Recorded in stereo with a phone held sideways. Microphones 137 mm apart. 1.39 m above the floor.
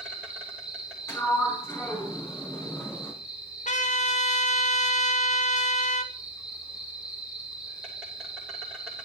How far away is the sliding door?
About 4.5 m.